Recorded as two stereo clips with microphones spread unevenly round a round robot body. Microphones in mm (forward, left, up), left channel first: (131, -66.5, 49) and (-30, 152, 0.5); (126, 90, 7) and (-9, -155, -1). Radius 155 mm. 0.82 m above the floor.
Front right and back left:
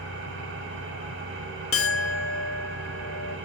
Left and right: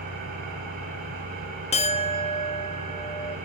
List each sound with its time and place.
0.0 s an engine running: straight behind, 3.5 m
1.7 s a clink: 10° right, 0.7 m